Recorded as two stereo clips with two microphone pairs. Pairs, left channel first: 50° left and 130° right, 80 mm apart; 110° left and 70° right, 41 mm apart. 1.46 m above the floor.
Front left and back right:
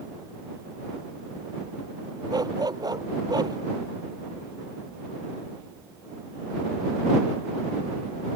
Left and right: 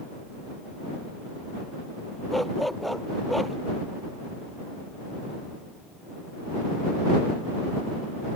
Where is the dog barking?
160° right.